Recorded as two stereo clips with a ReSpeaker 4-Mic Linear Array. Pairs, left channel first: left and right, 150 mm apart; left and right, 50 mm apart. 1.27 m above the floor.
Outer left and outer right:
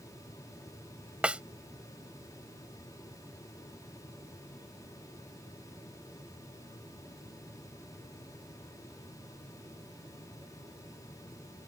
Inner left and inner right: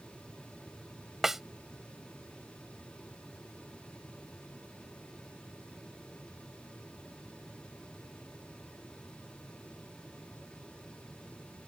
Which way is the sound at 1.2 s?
10° right (ahead or behind).